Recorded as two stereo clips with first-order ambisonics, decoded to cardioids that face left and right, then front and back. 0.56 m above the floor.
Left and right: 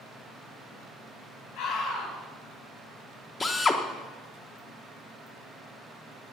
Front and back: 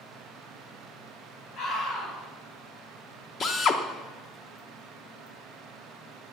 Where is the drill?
30° left, 0.9 m.